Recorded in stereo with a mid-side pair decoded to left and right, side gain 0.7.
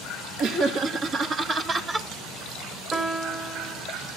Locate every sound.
0.4 s laughter: 55° right, 1.9 m; by 2.1 s 20° right, 1.9 m
2.9 s a piano: 20° right, 2 m